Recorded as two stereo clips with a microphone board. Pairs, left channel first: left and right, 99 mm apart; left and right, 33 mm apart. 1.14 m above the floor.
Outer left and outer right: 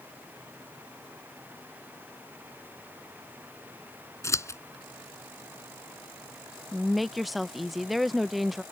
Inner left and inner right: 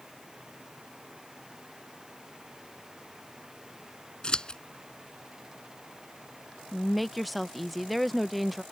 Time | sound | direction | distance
4.2 | scissors | 30° left (ahead or behind) | ?
6.7 | a woman speaking | centre (ahead or behind) | ?